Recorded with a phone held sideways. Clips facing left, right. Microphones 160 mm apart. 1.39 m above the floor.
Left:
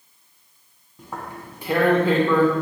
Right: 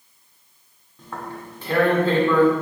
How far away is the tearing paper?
About 0.8 m.